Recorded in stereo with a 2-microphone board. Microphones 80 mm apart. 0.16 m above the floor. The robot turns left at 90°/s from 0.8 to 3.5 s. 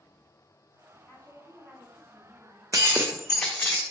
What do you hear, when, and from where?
1.1 s a woman speaking: 50° left, 1.7 m; by 2.6 s 90° right, 1.7 m
2.7 s breaking glass: 135° right, 0.8 m; by 3.8 s 155° left, 0.8 m